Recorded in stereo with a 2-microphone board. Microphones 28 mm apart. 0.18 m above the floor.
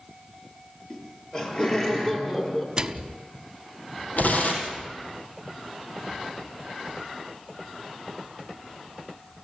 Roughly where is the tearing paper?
Left.